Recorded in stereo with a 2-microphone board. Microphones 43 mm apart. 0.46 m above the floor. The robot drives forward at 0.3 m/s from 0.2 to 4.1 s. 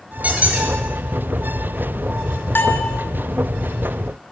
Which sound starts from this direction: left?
A bell, at 2.5 s.